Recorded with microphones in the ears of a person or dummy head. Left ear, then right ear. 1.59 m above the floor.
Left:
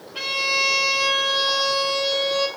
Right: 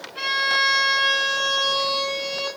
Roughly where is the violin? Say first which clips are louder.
Right 1 dB; centre.